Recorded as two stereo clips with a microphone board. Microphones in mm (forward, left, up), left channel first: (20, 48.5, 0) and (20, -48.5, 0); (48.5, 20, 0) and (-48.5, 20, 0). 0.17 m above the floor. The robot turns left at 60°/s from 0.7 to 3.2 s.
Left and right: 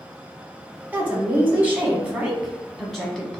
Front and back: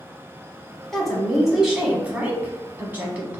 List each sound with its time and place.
0.9 s a woman speaking: 70° right, 1.0 m; by 3.4 s 155° left, 1.0 m